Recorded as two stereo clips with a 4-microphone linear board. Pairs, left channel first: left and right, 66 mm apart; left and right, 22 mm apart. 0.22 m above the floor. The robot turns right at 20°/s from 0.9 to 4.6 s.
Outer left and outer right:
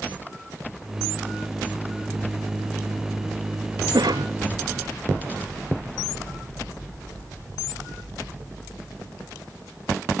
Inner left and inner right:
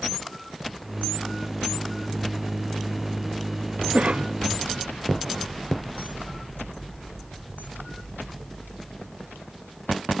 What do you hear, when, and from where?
3.9 s a cough: 80° right; by 4.3 s 75° right (ahead or behind)